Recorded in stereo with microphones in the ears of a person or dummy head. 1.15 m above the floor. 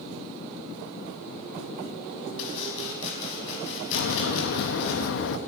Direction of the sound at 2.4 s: 70° left (ahead or behind).